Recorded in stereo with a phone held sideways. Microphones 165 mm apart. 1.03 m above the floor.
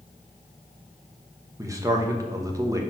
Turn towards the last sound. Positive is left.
turn(degrees=-20)  # may be behind; listen again after turning